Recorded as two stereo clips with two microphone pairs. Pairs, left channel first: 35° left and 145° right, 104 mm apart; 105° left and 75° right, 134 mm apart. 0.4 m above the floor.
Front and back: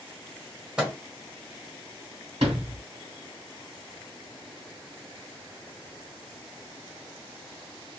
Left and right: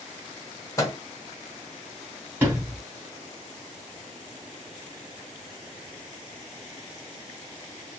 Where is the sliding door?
145° right, 1.9 m.